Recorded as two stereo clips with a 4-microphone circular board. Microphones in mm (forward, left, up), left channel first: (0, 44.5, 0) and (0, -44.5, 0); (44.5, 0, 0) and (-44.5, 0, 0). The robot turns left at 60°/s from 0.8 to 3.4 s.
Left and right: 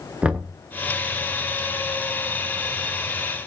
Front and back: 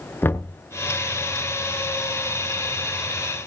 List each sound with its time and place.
0.2 s knocking: 30° right, 0.8 m